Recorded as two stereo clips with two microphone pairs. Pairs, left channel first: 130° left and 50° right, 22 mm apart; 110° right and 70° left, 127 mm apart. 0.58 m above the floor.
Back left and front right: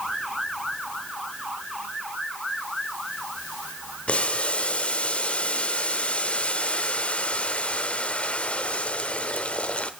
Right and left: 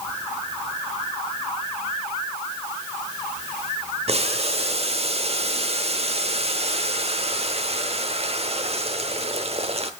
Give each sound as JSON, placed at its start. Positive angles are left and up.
{"t": 4.1, "sound": "boiling", "azimuth_deg": 105, "distance_m": 0.9}